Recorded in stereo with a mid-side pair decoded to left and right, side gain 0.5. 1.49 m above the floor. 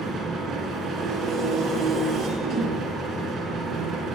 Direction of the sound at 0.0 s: 65° right.